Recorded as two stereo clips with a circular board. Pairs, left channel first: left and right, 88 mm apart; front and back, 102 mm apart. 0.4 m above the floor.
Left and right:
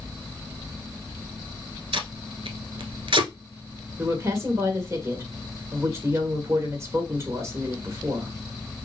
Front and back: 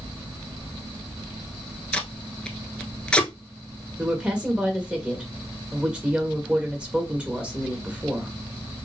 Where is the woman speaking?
105° right, 1.6 m.